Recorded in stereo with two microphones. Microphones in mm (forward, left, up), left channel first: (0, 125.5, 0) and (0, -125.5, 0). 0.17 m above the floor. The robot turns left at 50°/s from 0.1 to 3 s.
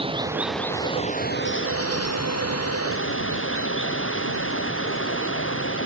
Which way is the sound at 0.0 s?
160° right.